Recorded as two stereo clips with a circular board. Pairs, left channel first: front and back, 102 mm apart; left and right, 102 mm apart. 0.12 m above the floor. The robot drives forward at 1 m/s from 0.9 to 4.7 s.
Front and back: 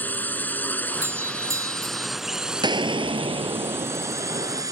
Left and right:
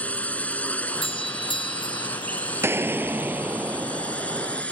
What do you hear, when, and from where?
0.0 s a drone: 40° left; by 4.7 s 160° left
1.0 s a doorbell: 115° left; by 2.1 s 130° left
2.6 s an explosion: 150° right; by 4.6 s 170° right